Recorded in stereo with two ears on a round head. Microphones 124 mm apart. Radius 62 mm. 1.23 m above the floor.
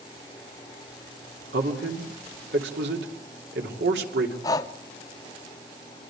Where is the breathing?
25° left (ahead or behind), 0.9 m.